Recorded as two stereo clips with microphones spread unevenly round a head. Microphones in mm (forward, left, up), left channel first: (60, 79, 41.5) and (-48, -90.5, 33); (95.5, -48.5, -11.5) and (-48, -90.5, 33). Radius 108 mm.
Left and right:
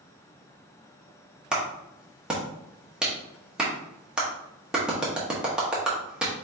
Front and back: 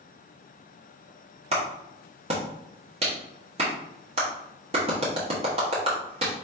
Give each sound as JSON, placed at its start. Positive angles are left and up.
{"t": 1.5, "sound": "a clap", "azimuth_deg": 150, "distance_m": 1.1}